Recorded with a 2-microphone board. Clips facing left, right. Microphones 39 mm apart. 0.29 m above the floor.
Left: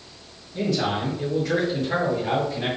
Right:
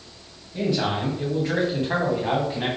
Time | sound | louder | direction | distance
0.5 | a man speaking | even | 20° right (ahead or behind) | 1.7 m